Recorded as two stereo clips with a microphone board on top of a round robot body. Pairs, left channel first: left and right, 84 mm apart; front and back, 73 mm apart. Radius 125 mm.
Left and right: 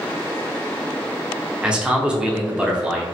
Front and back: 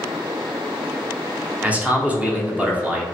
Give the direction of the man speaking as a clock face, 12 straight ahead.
5 o'clock.